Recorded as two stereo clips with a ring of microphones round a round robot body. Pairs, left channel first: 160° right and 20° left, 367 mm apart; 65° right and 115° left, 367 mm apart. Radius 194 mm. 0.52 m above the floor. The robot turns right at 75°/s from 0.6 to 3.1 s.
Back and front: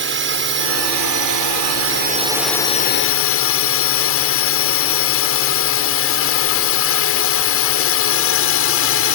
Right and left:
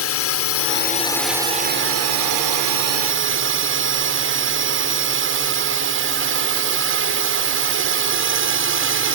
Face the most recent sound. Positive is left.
turn(degrees=160)